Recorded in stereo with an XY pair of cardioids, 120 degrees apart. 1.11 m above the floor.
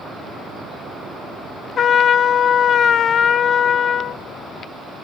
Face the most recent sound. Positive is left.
turn(degrees=45)